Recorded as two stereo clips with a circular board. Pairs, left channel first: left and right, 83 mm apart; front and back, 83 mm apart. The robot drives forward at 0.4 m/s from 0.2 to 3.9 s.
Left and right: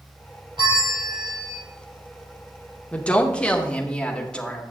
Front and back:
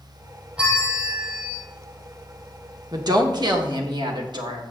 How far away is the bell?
About 3.5 m.